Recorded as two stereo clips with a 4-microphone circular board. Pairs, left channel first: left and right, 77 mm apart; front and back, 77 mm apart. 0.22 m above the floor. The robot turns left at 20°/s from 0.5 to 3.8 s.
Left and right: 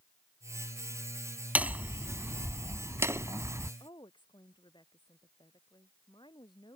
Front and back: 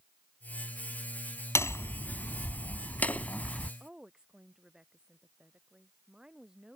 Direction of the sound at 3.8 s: 100° left.